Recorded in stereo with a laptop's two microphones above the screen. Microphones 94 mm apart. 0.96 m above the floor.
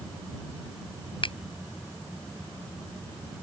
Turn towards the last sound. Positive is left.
turn(degrees=60)  # may be behind; listen again after turning